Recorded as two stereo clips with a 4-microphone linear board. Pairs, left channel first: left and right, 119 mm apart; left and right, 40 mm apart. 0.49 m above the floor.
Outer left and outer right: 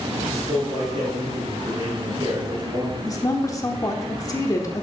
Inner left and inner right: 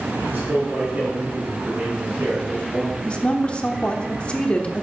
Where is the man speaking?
60° right (ahead or behind), 4.5 m.